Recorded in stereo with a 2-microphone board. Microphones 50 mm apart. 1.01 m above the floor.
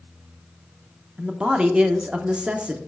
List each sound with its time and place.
1.2 s a man speaking: 25° right (ahead or behind), 0.9 m